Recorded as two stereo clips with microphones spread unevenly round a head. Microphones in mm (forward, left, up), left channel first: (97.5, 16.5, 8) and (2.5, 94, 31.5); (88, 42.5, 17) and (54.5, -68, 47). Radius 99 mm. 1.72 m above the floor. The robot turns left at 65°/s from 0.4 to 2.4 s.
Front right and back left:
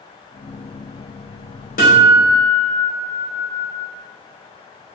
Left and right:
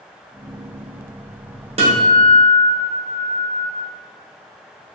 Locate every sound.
1.8 s a guitar: 80° right, 0.7 m; by 3.7 s 120° right, 0.7 m